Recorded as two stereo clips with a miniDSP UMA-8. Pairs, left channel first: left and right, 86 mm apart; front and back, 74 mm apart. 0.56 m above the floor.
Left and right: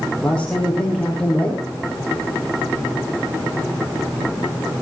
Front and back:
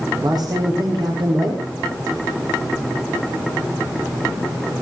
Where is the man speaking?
165° left, 5.5 m.